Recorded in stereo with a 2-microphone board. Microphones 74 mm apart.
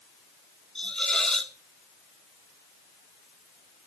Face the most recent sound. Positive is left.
turn(degrees=10)  # may be behind; listen again after turning